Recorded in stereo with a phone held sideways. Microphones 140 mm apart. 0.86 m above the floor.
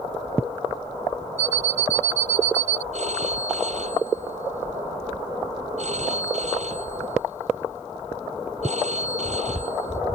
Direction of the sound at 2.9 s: 60° right (ahead or behind).